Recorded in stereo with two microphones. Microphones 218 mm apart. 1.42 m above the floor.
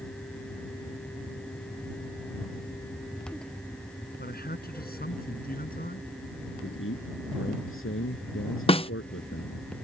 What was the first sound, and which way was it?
A man speaking, 45° left (ahead or behind).